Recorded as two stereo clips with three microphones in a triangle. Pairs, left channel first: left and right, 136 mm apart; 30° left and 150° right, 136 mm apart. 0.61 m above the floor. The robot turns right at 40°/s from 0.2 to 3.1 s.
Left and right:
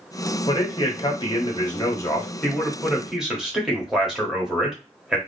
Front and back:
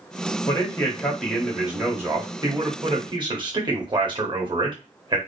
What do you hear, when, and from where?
0.5 s a man speaking: 80° left, 1.2 m; by 5.2 s 175° right, 1.2 m